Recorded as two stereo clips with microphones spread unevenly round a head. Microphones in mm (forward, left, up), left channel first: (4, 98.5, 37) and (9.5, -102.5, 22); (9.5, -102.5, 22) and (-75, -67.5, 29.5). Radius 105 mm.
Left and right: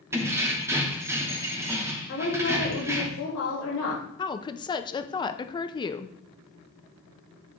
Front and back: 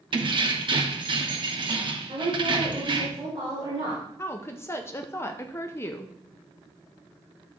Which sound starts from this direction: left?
A woman speaking, at 2.1 s.